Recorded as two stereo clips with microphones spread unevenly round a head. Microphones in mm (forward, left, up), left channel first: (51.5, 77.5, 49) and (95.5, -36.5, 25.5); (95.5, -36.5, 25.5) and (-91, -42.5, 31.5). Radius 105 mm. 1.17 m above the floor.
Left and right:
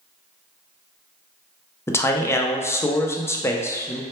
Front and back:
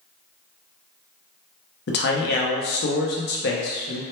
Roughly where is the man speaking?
Ahead left.